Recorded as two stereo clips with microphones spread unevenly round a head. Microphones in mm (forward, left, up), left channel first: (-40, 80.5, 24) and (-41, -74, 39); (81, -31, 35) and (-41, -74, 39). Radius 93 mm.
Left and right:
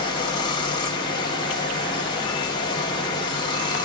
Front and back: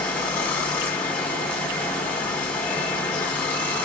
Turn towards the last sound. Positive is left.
turn(degrees=85)